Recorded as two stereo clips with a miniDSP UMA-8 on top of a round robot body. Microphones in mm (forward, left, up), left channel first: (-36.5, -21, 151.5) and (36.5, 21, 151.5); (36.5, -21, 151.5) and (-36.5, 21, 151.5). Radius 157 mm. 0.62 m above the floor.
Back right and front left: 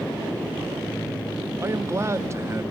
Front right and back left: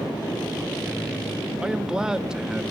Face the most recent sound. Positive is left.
turn(degrees=70)